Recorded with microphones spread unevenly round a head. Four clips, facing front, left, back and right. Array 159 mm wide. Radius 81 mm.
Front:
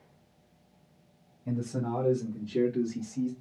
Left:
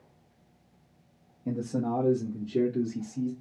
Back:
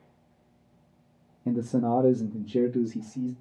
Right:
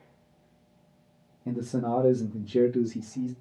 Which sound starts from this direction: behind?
A man speaking, at 1.4 s.